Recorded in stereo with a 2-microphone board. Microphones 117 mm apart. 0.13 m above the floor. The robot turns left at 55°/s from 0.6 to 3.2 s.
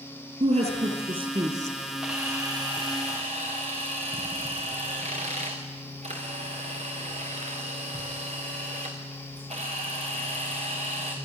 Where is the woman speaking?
90° right, 4 m; by 1.8 s 155° right, 4 m.